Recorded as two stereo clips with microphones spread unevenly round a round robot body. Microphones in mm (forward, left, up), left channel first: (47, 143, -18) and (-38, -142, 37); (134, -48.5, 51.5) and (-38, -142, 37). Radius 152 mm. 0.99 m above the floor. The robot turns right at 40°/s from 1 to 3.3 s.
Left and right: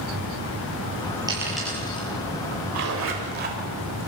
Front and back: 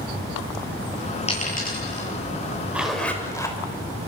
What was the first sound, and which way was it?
A dropped coin, 30° right.